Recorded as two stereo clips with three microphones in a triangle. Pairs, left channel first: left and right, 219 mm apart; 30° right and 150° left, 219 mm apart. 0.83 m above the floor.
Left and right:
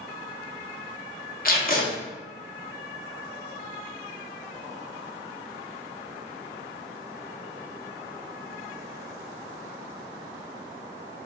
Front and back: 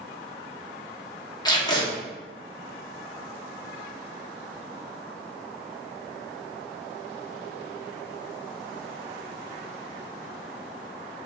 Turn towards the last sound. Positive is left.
turn(degrees=40)